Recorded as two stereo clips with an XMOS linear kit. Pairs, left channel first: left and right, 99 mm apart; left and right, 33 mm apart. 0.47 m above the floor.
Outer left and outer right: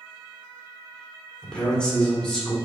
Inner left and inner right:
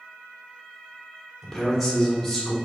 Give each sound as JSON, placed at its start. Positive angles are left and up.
{"t": 1.4, "sound": "a man speaking", "side_deg": 10, "distance_m": 1.3}